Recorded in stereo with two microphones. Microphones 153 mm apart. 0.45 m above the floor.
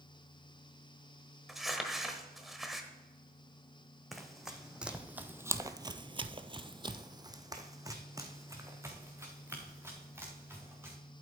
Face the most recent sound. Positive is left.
turn(degrees=-15)  # may be behind; listen again after turning